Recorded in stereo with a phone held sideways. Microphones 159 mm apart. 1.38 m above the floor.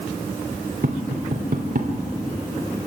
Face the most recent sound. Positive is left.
turn(degrees=-70)  # may be behind; listen again after turning